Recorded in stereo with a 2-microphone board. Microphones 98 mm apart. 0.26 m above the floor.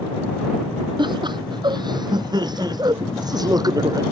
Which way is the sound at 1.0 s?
50° right (ahead or behind).